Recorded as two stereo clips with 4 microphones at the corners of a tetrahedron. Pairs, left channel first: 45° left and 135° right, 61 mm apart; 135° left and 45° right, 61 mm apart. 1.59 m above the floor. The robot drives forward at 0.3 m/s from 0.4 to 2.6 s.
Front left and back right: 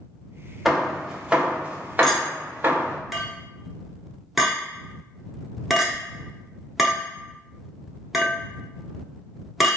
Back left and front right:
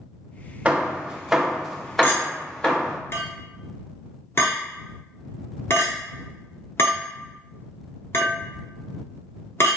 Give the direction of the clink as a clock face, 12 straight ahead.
8 o'clock.